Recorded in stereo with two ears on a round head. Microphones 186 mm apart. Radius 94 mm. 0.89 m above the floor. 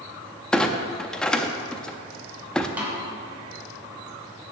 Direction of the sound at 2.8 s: 10° right (ahead or behind).